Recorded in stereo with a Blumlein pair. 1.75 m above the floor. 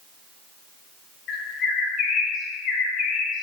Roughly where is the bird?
Ahead left.